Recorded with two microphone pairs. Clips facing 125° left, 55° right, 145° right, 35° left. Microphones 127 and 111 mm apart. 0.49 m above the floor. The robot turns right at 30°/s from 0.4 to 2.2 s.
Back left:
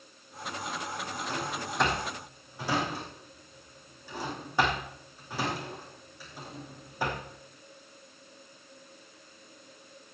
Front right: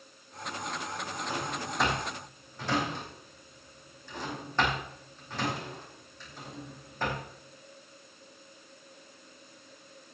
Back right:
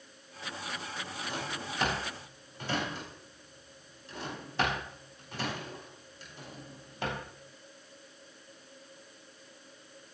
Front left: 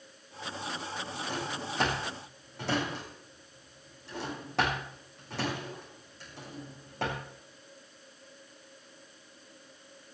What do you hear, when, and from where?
1.3 s a drawer: 20° left, 6.5 m; by 7.2 s 45° left, 6.5 m